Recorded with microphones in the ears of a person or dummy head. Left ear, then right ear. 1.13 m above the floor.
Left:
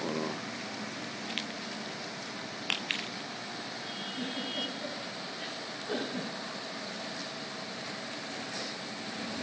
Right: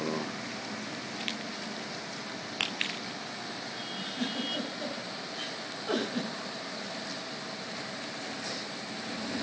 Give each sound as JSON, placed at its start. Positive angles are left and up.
{"t": 3.9, "sound": "a giggle", "side_deg": -75, "distance_m": 4.5}